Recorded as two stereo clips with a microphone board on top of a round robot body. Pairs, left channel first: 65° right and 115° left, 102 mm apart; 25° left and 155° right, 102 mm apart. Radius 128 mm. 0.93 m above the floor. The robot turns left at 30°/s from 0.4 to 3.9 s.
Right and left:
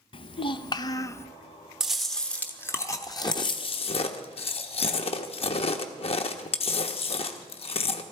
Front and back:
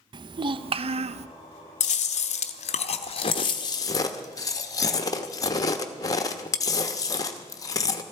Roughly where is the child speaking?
Right.